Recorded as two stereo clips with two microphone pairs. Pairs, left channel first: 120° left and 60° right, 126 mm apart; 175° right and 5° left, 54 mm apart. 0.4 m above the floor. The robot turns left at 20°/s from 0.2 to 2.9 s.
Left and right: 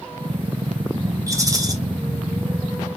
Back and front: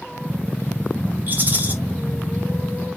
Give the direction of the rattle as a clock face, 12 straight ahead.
1 o'clock.